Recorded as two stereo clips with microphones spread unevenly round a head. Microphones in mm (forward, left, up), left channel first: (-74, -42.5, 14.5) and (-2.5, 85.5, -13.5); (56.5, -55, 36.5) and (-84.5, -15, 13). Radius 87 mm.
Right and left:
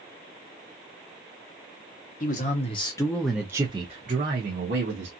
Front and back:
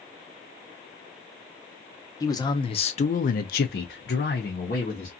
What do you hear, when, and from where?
2.2 s a man speaking: 80° right, 0.8 m; by 5.1 s 30° left, 1.1 m